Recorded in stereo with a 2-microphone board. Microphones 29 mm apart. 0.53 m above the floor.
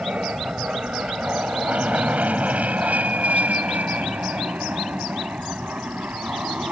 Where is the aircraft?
50° right (ahead or behind); by 6.7 s 70° right (ahead or behind).